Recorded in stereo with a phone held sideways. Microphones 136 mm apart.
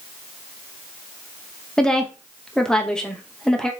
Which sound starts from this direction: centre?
A woman speaking, at 1.8 s.